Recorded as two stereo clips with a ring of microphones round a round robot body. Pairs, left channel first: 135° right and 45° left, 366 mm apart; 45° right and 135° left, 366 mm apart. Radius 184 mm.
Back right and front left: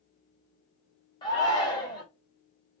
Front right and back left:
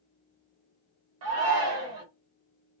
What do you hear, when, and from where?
1.2 s a shout: 150° left, 1.1 m